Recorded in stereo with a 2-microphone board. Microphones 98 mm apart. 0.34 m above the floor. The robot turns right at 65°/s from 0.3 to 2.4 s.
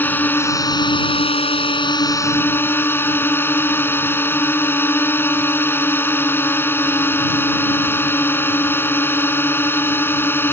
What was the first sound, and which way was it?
A drone, 20° left.